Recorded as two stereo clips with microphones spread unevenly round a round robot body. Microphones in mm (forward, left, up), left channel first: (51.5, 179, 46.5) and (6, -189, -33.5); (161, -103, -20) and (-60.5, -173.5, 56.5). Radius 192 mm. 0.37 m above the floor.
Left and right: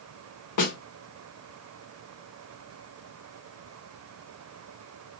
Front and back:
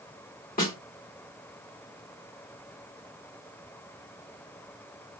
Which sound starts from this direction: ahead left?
A snare drum, at 0.6 s.